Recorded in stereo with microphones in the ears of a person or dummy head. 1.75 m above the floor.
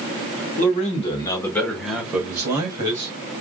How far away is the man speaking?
About 1.2 m.